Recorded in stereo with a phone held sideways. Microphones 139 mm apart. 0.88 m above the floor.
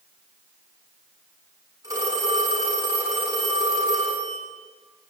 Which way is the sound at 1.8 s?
25° right (ahead or behind).